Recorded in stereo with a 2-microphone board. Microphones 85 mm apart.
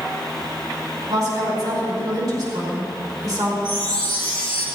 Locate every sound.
1.1 s a woman speaking: 45° right (ahead or behind), 5 m
3.6 s a chime: 45° right (ahead or behind), 5 m